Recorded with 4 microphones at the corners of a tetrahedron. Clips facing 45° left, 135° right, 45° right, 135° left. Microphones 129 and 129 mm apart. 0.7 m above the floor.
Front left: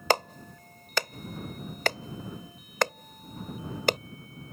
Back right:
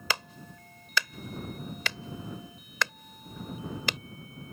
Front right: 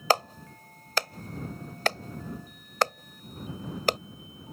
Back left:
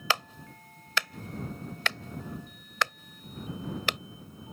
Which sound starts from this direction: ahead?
A clap, at 0.1 s.